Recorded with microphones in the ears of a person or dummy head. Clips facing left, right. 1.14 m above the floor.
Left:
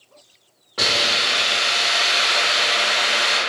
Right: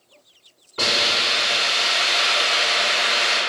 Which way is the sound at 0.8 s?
65° left (ahead or behind).